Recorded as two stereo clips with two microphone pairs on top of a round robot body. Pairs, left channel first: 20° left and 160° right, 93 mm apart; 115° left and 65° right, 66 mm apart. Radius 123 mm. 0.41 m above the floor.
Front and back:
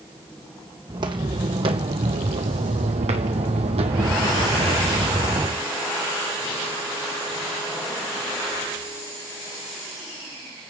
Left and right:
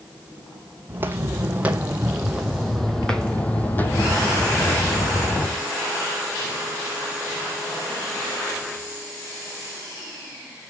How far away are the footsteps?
About 1.8 m.